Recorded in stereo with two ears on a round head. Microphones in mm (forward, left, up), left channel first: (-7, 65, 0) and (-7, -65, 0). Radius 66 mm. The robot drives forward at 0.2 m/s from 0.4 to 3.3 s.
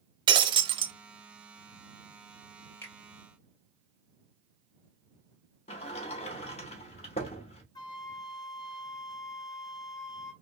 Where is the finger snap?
15° left (ahead or behind), 2.0 m.